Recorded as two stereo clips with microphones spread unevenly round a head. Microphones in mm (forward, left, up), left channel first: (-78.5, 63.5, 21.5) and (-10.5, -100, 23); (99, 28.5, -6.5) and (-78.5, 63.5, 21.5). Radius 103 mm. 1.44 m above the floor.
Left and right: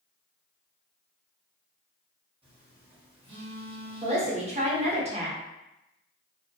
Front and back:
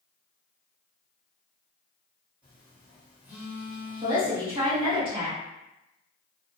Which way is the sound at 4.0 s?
120° right.